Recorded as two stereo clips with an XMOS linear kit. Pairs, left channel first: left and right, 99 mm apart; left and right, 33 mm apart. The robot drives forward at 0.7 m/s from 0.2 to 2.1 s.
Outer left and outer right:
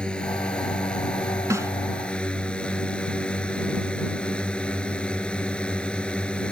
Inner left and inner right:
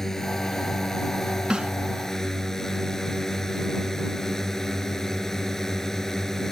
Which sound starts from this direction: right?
A snare drum, at 1.5 s.